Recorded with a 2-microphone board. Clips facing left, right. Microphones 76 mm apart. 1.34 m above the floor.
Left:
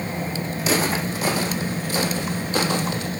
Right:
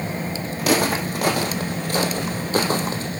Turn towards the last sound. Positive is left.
turn(degrees=-35)  # may be behind; listen again after turning